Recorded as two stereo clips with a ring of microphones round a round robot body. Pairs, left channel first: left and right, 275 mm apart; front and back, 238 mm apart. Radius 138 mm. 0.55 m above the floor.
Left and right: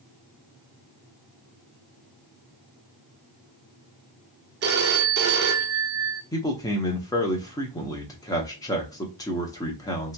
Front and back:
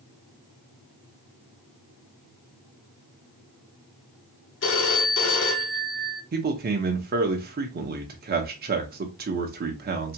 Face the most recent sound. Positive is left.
turn(degrees=160)